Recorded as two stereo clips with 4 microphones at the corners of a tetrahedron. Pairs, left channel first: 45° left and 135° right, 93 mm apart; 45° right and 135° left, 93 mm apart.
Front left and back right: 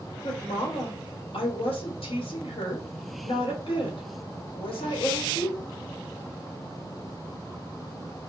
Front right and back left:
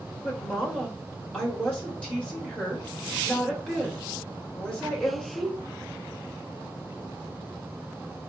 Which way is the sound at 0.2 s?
35° left.